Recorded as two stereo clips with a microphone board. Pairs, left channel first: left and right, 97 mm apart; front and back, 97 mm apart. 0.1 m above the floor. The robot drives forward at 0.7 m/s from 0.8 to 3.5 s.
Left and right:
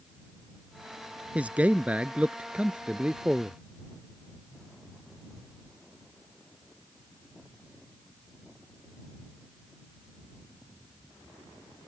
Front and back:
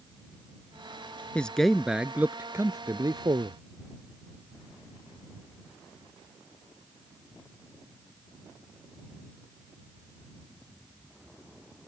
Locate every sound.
1.4 s a man speaking: 50° right; by 3.6 s 170° right